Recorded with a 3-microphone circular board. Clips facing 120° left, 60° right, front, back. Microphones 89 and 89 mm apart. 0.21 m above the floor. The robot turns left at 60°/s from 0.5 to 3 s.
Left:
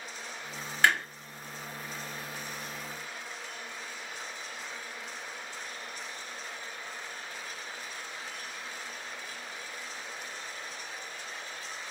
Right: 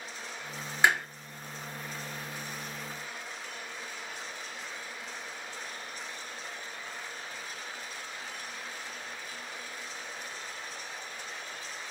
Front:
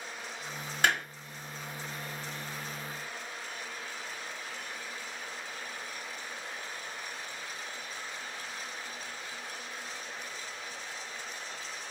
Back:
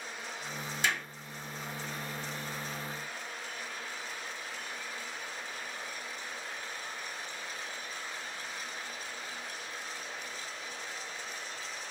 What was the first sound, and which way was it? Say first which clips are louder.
A clap: even, front 5 dB; 10° left.